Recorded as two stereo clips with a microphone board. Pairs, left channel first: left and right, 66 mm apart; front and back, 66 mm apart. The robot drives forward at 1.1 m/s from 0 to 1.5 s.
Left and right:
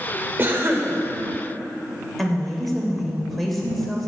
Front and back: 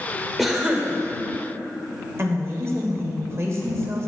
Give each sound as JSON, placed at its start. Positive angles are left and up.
{"t": 0.4, "sound": "a cough", "azimuth_deg": -90, "distance_m": 1.3}
{"t": 2.2, "sound": "a woman speaking", "azimuth_deg": 180, "distance_m": 1.5}